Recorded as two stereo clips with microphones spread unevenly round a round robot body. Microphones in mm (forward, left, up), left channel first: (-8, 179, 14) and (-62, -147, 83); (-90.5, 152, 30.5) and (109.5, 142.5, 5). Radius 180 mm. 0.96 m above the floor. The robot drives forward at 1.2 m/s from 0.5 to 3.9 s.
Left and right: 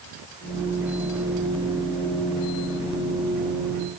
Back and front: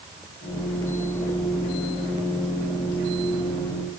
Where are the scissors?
No scissors in this recording.